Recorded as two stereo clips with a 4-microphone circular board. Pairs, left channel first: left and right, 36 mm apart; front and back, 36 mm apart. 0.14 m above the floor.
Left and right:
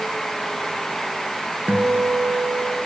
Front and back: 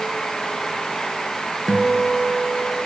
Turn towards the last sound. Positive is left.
turn(degrees=-100)